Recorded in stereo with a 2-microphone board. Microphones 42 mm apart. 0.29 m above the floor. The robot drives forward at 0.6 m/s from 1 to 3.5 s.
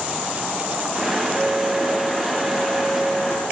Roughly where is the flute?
Left.